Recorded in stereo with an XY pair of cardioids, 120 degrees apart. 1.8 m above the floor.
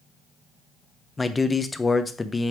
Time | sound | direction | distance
1.2 | a man speaking | 15° left | 0.9 m